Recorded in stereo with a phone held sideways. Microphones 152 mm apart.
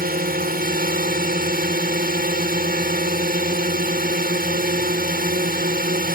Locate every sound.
0.0 s a drone: 75° right (ahead or behind)